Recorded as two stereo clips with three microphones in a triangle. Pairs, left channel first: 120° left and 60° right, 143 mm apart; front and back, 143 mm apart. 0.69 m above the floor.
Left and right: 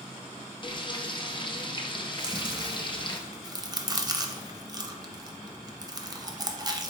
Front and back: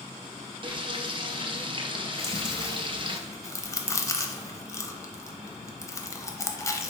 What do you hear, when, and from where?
0.6 s frying: 150° left, 0.5 m
2.2 s chewing: 40° right, 0.5 m